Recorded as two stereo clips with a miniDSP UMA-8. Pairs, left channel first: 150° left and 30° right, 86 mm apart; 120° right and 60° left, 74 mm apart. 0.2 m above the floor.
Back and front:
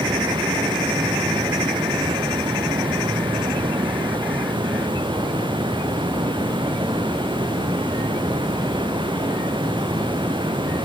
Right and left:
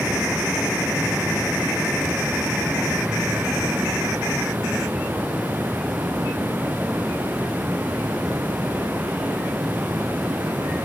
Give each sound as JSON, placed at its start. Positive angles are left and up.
{"t": 0.0, "sound": "running water", "azimuth_deg": -10, "distance_m": 3.0}